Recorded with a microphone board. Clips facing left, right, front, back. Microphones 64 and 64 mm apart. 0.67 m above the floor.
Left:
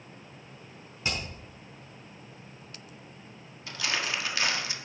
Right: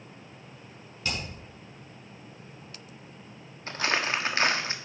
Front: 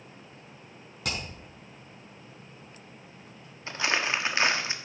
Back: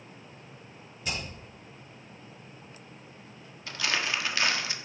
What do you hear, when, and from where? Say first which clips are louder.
1.0 s hammering: even, front 1 dB; 20° left, 6 m
3.7 s crumpling: right 4 dB, front 3 dB; 55° right, 1.0 m